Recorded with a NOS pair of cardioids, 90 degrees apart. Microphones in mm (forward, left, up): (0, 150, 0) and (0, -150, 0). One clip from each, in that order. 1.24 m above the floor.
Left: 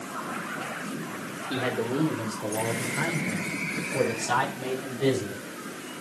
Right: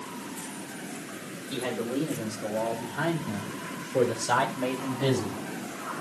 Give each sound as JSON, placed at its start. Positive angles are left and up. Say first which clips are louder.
{"t": 1.5, "sound": "a man speaking", "louder": "left 3 dB", "azimuth_deg": 35, "distance_m": 3.5}